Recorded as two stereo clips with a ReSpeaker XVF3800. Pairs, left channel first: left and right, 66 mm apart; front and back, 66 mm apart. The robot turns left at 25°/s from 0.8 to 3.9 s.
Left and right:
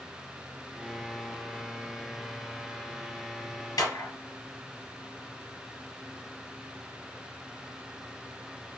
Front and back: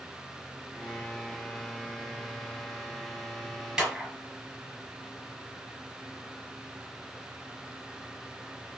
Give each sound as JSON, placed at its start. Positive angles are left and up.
{"t": 3.8, "sound": "a clap", "azimuth_deg": 100, "distance_m": 3.0}